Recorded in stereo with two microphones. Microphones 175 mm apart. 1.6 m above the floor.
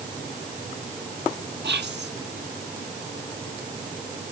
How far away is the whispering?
About 1.7 m.